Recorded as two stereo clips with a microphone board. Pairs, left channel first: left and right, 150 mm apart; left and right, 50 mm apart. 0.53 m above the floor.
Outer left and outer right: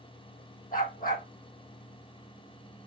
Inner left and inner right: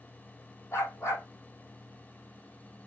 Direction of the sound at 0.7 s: 70° left (ahead or behind).